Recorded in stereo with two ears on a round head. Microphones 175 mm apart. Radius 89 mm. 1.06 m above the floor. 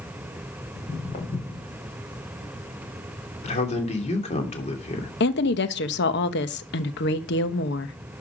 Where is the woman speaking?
50° left (ahead or behind), 1.1 m.